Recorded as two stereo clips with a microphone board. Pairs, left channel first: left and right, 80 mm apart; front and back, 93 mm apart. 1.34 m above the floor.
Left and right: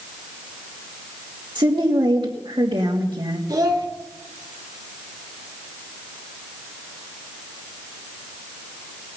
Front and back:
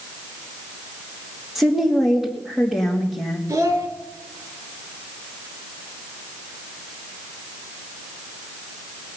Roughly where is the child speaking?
Behind right.